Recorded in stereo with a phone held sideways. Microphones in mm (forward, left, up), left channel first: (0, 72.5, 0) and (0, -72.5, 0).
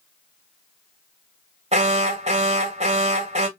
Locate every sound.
1.7 s an alarm: 45° right (ahead or behind), 1.1 m